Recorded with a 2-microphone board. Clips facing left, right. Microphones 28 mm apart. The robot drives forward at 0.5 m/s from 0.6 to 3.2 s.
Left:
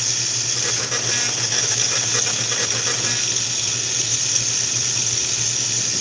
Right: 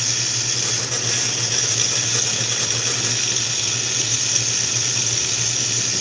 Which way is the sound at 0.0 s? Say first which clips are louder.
Right 1 dB; 10° right (ahead or behind).